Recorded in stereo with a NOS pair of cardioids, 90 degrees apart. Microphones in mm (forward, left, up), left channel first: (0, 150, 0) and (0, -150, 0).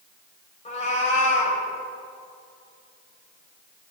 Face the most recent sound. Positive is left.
turn(degrees=25)